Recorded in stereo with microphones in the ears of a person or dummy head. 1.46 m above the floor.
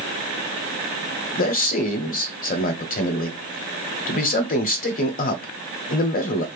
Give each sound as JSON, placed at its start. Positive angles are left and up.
{"t": 1.4, "sound": "a man speaking", "side_deg": 40, "distance_m": 0.7}